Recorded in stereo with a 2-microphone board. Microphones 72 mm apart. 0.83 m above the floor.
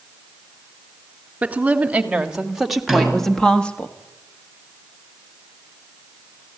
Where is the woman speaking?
20° right (ahead or behind), 2.5 m; by 3.9 s 20° left (ahead or behind), 1.5 m.